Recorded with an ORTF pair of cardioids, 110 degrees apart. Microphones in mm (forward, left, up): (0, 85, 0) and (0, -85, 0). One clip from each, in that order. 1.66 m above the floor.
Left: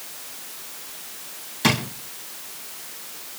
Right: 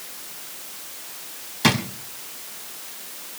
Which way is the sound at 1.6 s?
10° right.